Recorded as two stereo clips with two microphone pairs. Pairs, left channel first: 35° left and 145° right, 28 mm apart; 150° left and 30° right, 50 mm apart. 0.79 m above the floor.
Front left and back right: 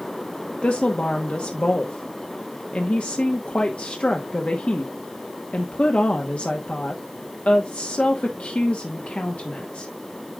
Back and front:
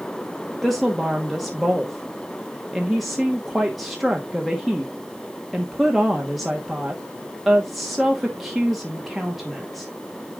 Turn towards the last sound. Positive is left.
turn(degrees=60)